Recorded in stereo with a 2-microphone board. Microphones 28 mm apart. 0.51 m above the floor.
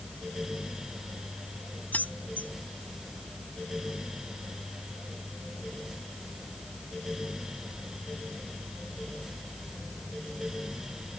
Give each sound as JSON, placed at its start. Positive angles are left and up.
{"t": 1.9, "sound": "keys jangling", "side_deg": 75}